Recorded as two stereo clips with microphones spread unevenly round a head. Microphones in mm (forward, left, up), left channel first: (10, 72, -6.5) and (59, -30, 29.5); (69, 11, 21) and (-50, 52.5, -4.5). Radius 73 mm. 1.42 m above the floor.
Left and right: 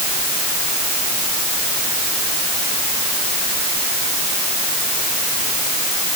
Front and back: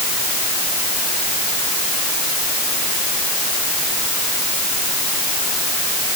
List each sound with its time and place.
Only background noise.